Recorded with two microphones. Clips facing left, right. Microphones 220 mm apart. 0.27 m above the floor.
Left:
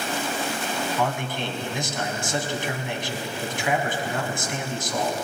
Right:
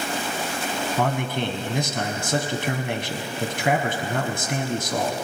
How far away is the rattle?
No rattle in this recording.